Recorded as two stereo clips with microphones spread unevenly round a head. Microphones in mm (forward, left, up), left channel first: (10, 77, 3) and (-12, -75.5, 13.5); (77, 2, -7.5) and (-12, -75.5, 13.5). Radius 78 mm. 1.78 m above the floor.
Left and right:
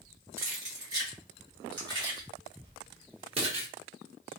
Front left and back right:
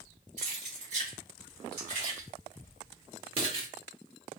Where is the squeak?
I don't hear a squeak.